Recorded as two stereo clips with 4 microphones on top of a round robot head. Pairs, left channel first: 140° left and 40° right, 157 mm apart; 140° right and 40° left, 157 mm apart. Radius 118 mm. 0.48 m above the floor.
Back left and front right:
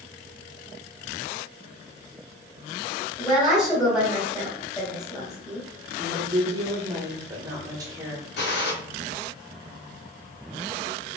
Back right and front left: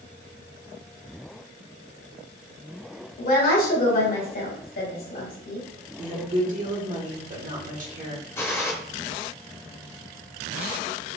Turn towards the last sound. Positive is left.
turn(degrees=145)